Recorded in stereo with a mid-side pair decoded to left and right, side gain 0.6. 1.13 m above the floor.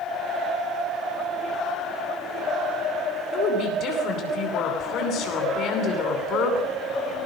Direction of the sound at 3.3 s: 60° left.